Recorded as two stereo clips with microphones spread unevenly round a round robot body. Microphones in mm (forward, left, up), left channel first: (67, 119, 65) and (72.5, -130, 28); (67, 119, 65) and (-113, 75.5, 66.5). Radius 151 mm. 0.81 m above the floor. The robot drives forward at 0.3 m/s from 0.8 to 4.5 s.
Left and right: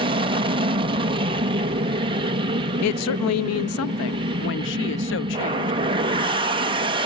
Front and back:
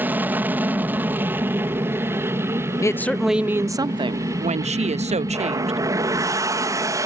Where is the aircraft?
95° right; by 7.1 s 110° right.